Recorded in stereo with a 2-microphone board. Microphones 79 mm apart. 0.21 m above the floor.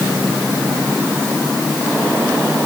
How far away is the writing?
No writing in this recording.